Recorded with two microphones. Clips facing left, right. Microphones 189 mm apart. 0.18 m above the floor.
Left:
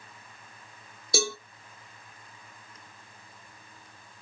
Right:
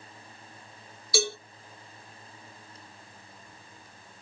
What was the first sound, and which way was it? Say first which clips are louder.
A cowbell: right 1 dB; 45° left (ahead or behind).